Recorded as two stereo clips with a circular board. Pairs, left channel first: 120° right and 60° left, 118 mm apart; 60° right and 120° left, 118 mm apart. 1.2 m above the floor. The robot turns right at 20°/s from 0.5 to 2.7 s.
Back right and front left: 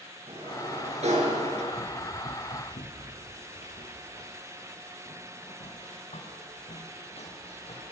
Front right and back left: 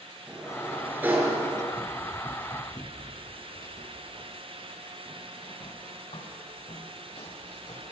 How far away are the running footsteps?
About 5.5 m.